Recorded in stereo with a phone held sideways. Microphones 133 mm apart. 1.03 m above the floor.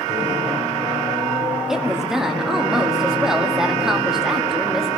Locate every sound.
1.7 s a woman speaking: 5° right (ahead or behind), 1.8 m